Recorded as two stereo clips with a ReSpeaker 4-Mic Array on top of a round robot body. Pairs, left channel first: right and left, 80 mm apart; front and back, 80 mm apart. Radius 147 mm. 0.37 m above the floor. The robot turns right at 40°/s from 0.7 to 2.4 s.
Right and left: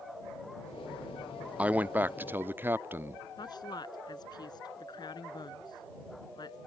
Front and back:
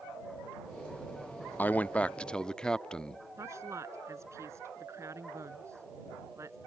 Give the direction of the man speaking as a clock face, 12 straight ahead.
11 o'clock.